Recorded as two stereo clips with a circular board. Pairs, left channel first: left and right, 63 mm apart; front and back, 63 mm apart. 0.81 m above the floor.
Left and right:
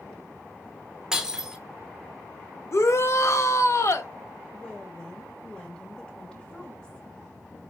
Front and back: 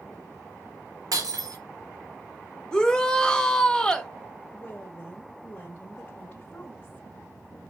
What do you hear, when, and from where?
1.1 s breaking glass: 170° right, 0.9 m
2.7 s a shout: 75° left, 0.8 m
4.5 s a woman speaking: 25° left, 0.9 m